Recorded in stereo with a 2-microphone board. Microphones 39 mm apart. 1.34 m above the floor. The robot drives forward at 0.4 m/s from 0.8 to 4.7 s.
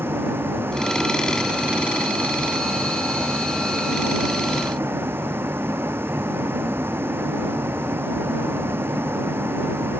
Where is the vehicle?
80° right; by 10.0 s 85° right.